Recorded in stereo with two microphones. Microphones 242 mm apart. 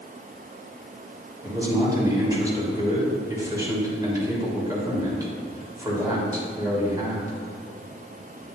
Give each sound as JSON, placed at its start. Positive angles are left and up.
{"t": 1.4, "sound": "a man speaking", "side_deg": -15, "distance_m": 3.0}